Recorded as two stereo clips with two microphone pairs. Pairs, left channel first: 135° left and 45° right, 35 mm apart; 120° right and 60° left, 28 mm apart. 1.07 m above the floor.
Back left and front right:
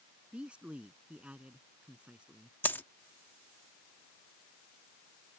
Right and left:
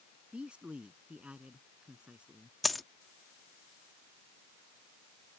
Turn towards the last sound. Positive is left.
turn(degrees=155)